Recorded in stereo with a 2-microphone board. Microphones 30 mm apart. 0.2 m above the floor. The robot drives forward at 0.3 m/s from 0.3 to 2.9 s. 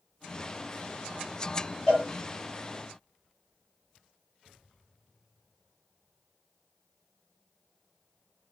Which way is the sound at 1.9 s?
35° left (ahead or behind).